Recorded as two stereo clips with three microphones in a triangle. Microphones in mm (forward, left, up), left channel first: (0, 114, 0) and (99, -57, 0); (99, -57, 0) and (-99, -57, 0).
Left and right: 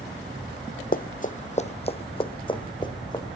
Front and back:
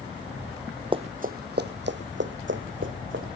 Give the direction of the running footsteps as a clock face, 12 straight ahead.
8 o'clock.